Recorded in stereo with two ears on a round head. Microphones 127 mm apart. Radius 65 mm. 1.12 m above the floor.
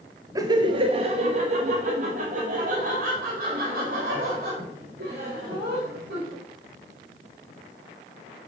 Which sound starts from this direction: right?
Laughter, at 0.3 s.